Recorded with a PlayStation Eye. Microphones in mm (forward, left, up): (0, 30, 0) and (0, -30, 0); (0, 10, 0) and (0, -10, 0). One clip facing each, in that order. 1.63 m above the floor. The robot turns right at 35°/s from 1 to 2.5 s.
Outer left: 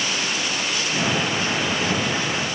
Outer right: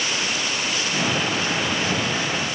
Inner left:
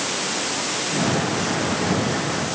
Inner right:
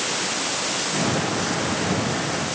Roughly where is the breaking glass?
I don't hear breaking glass.